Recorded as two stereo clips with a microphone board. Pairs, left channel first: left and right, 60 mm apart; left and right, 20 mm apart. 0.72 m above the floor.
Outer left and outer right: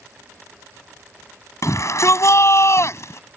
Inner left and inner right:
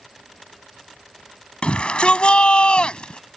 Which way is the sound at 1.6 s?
55° left (ahead or behind).